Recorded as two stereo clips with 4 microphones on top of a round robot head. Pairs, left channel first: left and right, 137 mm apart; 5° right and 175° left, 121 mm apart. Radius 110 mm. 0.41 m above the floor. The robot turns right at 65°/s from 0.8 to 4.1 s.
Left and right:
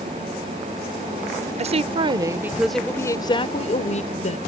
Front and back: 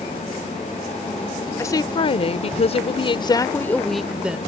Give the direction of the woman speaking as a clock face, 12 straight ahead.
2 o'clock.